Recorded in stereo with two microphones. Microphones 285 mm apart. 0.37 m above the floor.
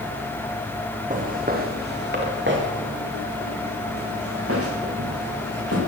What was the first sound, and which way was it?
Footsteps, 30° right (ahead or behind).